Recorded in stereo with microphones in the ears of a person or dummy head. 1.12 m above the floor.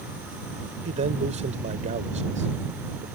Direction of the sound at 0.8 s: 45° right (ahead or behind).